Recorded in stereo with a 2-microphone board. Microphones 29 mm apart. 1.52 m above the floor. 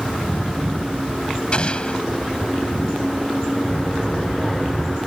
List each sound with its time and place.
1.5 s an explosion: 35° left (ahead or behind)
3.7 s a child speaking: 5° left (ahead or behind)